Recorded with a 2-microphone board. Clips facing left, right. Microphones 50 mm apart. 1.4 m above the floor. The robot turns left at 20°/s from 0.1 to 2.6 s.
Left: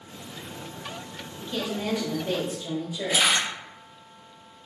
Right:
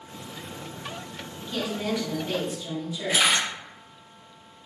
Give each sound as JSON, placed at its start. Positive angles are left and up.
{"t": 1.4, "sound": "a woman speaking", "side_deg": 5, "distance_m": 1.1}
{"t": 3.1, "sound": "a camera shutter", "side_deg": -10, "distance_m": 1.6}